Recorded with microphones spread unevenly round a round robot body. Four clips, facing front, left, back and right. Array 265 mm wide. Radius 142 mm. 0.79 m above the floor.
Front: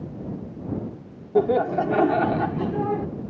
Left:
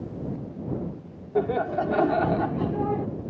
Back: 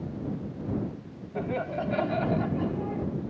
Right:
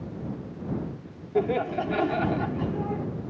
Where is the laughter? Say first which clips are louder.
Left 1 dB, front 11 dB; 5° right; by 3.1 s 20° left.